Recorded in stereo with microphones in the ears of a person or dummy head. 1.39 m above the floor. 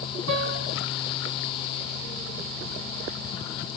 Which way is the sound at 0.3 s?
75° right (ahead or behind).